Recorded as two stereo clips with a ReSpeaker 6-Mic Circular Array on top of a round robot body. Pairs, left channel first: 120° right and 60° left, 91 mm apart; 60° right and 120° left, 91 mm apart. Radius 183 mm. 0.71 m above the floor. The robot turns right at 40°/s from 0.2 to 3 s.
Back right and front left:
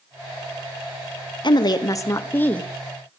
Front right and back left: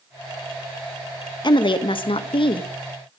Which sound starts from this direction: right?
A woman speaking, at 1.4 s.